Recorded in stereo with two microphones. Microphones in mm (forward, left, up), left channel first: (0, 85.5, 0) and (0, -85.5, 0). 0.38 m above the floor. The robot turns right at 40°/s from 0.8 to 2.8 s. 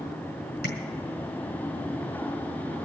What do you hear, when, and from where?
0.6 s tapping: 75° left (ahead or behind), 5 m